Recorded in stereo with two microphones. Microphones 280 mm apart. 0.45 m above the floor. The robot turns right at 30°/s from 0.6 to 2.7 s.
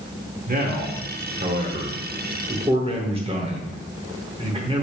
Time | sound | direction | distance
0.5 | a man speaking | 100° right | 0.9 m